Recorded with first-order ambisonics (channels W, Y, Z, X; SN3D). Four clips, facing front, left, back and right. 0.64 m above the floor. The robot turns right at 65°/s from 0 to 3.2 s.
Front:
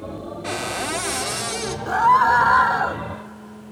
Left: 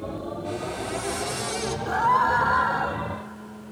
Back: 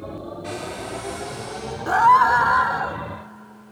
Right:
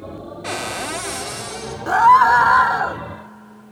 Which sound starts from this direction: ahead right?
A cupboard door, at 0.4 s.